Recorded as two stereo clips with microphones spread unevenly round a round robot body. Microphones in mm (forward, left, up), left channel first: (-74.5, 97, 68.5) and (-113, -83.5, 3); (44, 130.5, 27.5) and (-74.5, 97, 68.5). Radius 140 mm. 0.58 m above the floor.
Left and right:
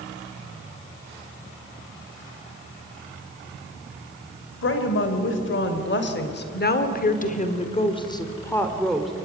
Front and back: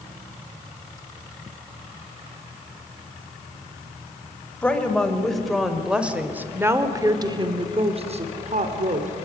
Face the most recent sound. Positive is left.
turn(degrees=175)